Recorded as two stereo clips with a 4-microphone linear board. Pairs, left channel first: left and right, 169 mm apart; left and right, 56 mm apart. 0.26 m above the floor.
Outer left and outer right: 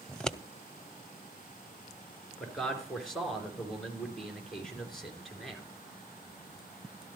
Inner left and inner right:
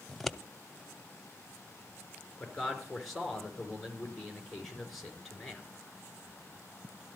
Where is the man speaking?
Centre (ahead or behind), 4 m.